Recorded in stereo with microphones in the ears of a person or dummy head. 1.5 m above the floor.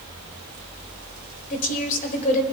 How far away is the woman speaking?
About 1.3 m.